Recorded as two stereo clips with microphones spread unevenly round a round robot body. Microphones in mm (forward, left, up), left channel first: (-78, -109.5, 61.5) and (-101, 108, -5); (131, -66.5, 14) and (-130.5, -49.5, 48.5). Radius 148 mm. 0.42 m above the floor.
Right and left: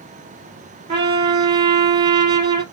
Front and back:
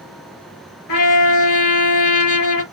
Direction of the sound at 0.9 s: 20° left.